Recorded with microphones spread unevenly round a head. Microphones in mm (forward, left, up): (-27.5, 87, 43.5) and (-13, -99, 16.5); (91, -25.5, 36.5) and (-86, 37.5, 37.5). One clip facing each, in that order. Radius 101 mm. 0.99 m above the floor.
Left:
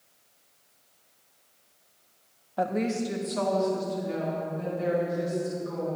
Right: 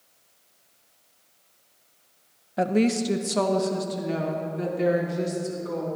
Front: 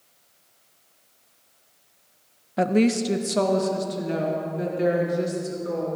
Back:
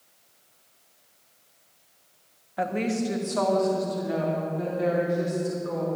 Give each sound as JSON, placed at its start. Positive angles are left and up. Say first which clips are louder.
{"t": 2.6, "sound": "a woman speaking", "louder": "right 5 dB, front 7 dB", "azimuth_deg": -30, "distance_m": 0.7}